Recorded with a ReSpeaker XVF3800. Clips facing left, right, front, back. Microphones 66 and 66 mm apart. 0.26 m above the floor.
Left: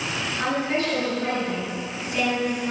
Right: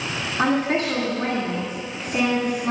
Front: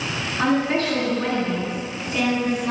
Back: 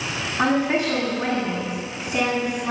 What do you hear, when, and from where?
0.4 s a woman speaking: 120° right, 2 m